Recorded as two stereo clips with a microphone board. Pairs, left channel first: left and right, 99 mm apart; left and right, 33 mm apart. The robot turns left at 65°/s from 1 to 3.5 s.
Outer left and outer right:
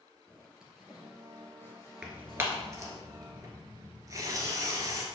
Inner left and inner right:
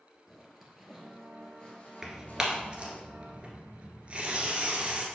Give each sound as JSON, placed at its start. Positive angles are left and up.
{"t": 0.3, "sound": "a zipper", "side_deg": -5, "distance_m": 2.0}
{"t": 2.0, "sound": "tearing paper", "side_deg": -10, "distance_m": 1.7}